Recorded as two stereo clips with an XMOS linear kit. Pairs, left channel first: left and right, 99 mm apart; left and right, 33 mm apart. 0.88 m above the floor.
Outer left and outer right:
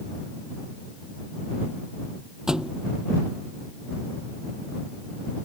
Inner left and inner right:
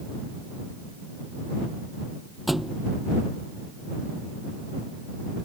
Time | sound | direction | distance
2.5 | a thud | 5° right (ahead or behind) | ?